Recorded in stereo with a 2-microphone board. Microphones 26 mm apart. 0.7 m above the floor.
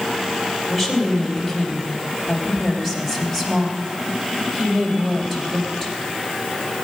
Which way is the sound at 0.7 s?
Centre (ahead or behind).